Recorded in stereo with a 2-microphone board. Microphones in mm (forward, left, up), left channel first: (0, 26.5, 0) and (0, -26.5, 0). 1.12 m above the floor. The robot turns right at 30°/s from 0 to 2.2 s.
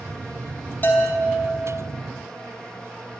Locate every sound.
0.8 s a bell: 35° left (ahead or behind), 3 m; by 1.5 s 15° left (ahead or behind), 3 m